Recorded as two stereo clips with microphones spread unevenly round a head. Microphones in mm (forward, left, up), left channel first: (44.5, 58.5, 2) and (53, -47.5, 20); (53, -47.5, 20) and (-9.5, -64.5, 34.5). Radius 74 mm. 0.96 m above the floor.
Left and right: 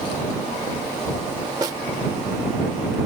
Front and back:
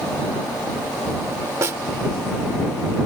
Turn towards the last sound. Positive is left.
turn(degrees=-140)